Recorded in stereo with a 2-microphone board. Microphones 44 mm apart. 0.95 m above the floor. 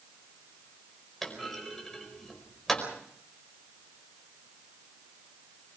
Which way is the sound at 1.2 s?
10° left (ahead or behind).